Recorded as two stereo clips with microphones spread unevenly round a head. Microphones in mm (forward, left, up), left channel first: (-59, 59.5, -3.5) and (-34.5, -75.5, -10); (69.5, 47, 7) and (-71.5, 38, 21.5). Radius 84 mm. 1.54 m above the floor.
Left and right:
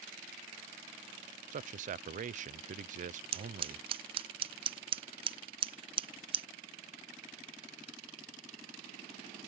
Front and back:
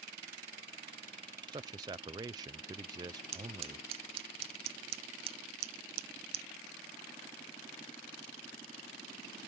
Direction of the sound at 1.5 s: 110° right.